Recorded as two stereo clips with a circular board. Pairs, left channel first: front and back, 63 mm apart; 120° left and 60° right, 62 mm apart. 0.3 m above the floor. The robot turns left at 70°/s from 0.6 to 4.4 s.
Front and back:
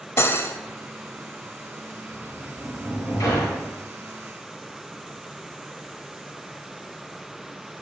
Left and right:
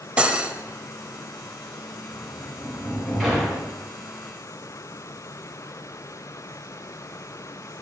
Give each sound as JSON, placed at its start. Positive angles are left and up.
{"t": 0.2, "sound": "cutlery clinking", "azimuth_deg": 5, "distance_m": 0.5}
{"t": 2.1, "sound": "a sliding door", "azimuth_deg": 105, "distance_m": 2.5}